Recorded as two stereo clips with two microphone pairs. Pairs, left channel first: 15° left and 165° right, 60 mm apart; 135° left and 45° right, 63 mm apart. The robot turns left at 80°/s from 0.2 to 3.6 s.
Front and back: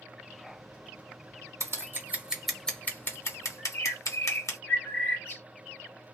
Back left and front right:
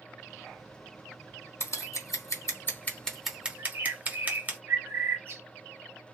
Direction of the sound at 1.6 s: 170° left.